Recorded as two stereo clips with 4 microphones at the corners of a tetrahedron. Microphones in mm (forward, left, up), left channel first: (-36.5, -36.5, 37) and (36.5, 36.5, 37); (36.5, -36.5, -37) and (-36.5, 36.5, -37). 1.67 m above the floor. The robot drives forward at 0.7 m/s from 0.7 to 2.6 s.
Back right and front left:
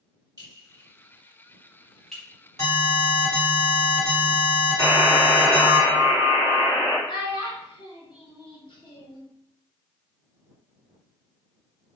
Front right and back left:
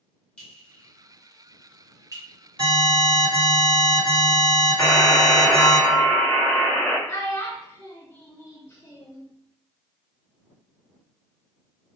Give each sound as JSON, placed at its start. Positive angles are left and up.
{"t": 0.4, "sound": "a clink", "azimuth_deg": 30, "distance_m": 1.1}
{"t": 2.6, "sound": "an alarm", "azimuth_deg": 160, "distance_m": 1.9}
{"t": 4.8, "sound": "a buzzer", "azimuth_deg": -110, "distance_m": 0.8}
{"t": 7.1, "sound": "a child speaking", "azimuth_deg": -105, "distance_m": 1.0}